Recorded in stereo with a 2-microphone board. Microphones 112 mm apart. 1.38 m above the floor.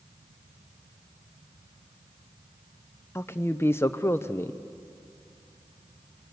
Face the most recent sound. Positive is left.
turn(degrees=20)  # may be behind; listen again after turning